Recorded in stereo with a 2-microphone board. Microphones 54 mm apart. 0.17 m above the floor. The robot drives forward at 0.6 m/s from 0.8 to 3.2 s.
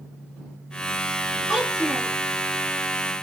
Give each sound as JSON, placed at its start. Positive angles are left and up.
{"t": 1.5, "sound": "a child speaking", "side_deg": 0, "distance_m": 1.6}